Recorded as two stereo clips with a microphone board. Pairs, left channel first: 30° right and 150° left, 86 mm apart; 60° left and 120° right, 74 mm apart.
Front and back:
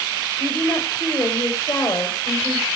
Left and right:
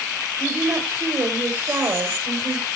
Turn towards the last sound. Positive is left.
turn(degrees=-60)